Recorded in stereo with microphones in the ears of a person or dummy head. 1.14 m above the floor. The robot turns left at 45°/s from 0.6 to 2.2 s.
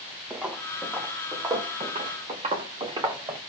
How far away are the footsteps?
About 3 m.